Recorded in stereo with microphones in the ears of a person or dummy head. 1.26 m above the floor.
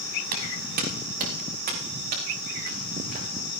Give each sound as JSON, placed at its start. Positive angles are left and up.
{"t": 0.3, "sound": "footsteps", "side_deg": -55, "distance_m": 5.5}